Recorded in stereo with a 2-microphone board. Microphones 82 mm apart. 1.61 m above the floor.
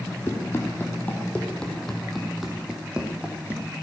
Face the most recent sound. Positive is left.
turn(degrees=-20)  # may be behind; listen again after turning